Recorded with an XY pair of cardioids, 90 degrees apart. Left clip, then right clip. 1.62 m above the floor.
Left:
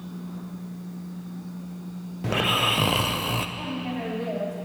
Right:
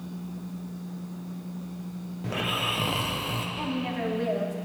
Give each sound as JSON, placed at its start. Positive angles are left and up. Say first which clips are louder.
{"t": 2.2, "sound": "snoring", "louder": "left 6 dB", "azimuth_deg": 50, "distance_m": 1.0}
{"t": 3.6, "sound": "a woman speaking", "louder": "right 1 dB", "azimuth_deg": -30, "distance_m": 4.5}